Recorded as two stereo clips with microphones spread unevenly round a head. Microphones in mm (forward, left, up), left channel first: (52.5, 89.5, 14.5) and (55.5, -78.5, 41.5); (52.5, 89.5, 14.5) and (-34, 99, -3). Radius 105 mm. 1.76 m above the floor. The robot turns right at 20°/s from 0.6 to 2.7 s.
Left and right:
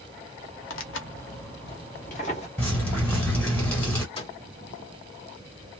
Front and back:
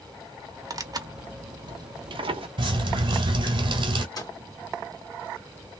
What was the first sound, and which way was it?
Tearing paper, 120° left.